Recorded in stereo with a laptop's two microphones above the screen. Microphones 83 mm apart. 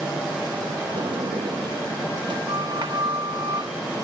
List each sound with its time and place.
0.9 s a sliding door: 70° right (ahead or behind)